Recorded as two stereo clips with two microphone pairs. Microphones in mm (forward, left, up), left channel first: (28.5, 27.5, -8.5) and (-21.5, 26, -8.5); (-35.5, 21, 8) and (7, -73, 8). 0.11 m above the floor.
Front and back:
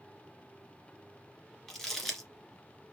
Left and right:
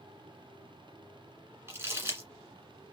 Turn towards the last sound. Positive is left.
turn(degrees=-75)